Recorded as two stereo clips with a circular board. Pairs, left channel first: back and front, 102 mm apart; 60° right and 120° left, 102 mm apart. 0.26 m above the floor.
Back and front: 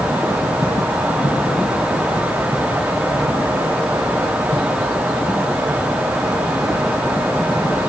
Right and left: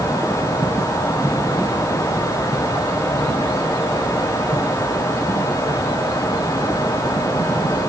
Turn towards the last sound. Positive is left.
No sound to turn to.